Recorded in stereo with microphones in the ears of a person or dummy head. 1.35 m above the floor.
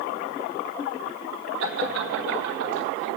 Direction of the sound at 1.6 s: 85° right.